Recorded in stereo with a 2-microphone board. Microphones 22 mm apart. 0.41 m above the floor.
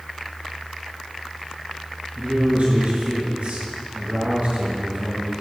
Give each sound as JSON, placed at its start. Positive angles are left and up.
{"t": 2.2, "sound": "a man speaking", "side_deg": -75, "distance_m": 3.5}